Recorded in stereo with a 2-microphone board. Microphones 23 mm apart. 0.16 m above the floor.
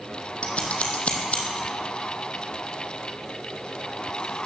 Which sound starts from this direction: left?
Scissors, at 0.4 s.